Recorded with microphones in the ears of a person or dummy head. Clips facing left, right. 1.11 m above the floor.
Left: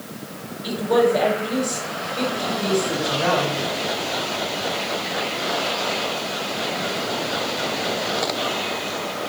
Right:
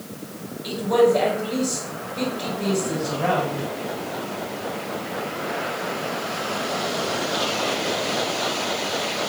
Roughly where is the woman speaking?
Centre.